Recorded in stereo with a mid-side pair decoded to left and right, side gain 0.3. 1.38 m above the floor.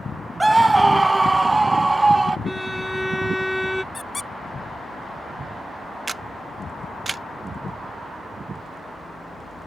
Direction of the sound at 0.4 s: 20° right.